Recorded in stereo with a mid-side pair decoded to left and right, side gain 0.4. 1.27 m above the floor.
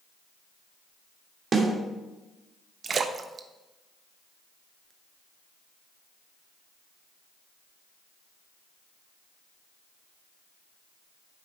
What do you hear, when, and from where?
1.5 s a snare drum: 45° right, 2.5 m
2.8 s a splash: 50° right, 0.9 m